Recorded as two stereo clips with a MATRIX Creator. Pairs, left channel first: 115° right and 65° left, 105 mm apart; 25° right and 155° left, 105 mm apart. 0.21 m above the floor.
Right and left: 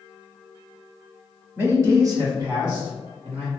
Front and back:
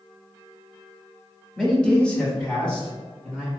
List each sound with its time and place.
1.6 s a man speaking: 45° left, 1.0 m; by 3.5 s 60° left, 1.9 m